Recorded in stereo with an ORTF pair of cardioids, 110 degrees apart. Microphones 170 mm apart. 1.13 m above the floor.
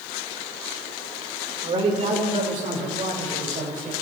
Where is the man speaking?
40° right, 3 m; by 3.9 s 55° right, 5 m.